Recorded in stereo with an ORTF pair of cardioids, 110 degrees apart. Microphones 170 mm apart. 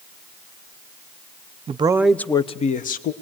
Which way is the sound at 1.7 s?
35° right.